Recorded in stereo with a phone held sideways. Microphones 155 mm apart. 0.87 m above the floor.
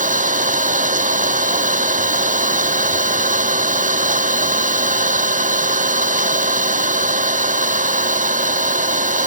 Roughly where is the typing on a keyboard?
I don't hear typing on a keyboard.